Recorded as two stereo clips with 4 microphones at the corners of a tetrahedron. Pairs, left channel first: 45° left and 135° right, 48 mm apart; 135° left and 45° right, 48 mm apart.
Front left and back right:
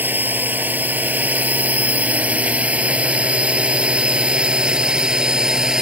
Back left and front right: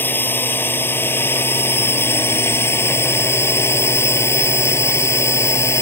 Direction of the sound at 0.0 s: 175° left.